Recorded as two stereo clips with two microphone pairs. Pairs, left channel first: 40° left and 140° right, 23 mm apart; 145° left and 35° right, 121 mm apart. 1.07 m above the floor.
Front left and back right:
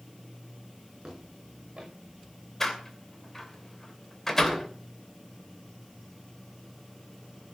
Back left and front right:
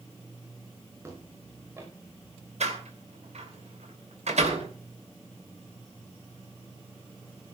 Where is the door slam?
35° right, 2.5 m.